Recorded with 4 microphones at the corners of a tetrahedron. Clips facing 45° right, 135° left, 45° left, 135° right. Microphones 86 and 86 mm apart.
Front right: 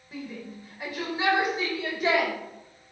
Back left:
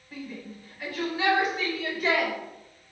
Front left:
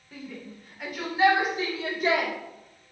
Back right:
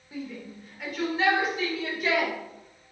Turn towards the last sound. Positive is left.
turn(degrees=10)